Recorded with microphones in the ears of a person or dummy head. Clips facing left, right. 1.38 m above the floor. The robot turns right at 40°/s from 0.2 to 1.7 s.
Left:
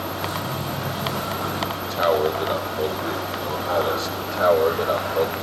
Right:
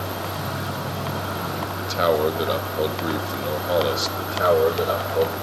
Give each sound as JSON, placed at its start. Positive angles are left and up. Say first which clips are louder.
{"t": 1.8, "sound": "a man speaking", "louder": "even", "side_deg": -40, "distance_m": 2.5}
{"t": 4.2, "sound": "a man speaking", "louder": "even", "side_deg": -20, "distance_m": 6.0}